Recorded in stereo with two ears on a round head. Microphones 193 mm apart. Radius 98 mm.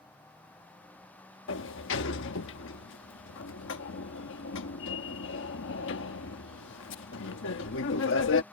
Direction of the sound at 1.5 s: 65° left (ahead or behind).